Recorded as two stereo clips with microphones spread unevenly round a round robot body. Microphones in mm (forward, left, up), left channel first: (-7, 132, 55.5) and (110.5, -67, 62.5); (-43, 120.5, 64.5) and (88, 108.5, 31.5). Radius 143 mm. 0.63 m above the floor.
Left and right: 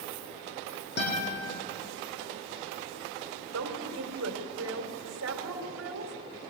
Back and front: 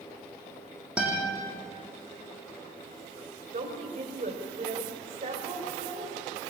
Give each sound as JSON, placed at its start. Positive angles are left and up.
{"t": 1.0, "sound": "a guitar", "azimuth_deg": 80, "distance_m": 9.0}
{"t": 3.5, "sound": "a woman speaking", "azimuth_deg": -40, "distance_m": 3.0}